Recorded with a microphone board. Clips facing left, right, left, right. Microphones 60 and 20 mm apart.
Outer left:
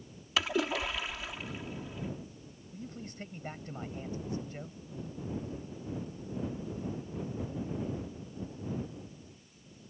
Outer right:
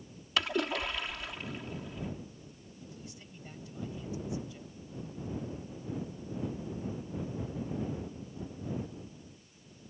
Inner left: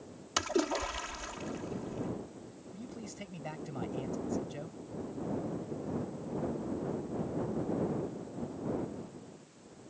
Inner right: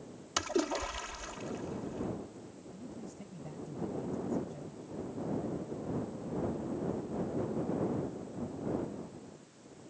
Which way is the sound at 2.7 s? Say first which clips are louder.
Outer left 7 dB, inner left 2 dB; 45° left (ahead or behind).